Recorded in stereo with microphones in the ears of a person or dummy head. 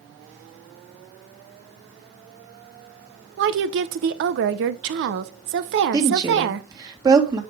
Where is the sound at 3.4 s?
55° right (ahead or behind), 0.7 m.